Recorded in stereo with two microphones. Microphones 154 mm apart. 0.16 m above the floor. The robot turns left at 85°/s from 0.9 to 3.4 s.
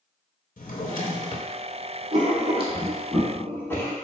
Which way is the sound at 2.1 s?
50° right (ahead or behind).